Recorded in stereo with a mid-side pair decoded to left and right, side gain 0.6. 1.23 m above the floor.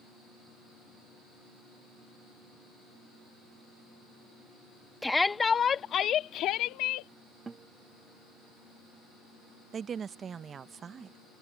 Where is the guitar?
25° right.